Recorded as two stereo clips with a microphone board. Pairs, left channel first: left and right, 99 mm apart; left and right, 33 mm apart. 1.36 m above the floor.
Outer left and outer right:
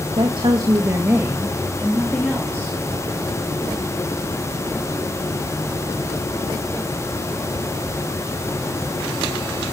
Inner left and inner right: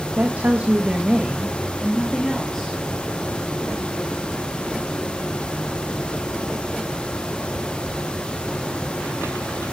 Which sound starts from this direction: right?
A woman speaking, at 0.2 s.